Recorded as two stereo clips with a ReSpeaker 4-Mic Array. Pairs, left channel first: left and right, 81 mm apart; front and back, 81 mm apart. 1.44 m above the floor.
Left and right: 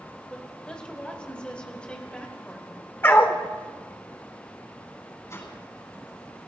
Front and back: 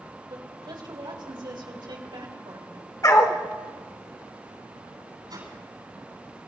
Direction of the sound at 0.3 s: 165° left.